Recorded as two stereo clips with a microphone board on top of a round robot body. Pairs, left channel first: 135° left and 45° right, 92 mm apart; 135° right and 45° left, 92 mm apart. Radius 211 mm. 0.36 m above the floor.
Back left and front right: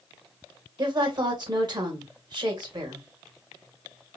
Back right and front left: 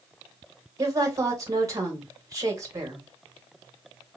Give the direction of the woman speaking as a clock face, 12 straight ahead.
12 o'clock.